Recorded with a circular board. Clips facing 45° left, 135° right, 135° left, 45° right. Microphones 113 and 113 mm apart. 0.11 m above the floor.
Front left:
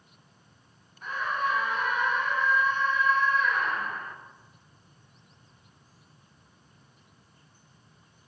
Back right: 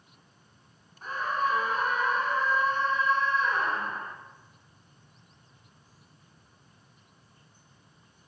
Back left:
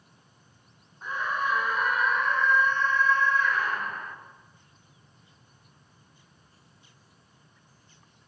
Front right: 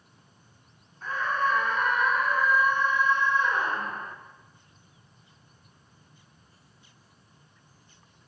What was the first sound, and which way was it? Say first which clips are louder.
A scream: back right 1 dB, front right 2 dB; 160° right.